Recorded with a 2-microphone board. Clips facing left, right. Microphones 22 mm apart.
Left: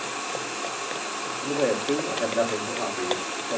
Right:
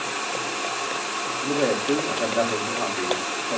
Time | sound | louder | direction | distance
1.4 | a man speaking | right 1 dB | 45° right (ahead or behind) | 2.5 m